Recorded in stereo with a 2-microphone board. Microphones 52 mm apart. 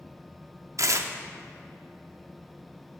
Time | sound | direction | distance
0.8 | tearing paper | 65° right (ahead or behind) | 0.6 m